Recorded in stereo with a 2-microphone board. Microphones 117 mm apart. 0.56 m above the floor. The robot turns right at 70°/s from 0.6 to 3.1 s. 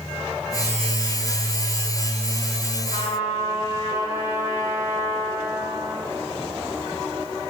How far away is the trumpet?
About 2.5 m.